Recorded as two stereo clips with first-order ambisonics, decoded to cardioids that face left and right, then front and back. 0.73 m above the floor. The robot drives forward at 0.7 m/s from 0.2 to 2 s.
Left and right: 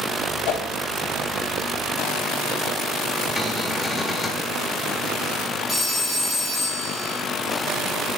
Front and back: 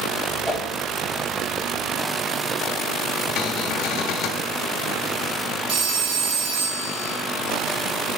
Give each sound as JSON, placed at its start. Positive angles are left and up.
{"t": 0.5, "sound": "a whoosh", "azimuth_deg": 90, "distance_m": 3.0}
{"t": 3.4, "sound": "a cupboard door", "azimuth_deg": 15, "distance_m": 1.1}
{"t": 5.7, "sound": "a phone ringing", "azimuth_deg": 170, "distance_m": 1.6}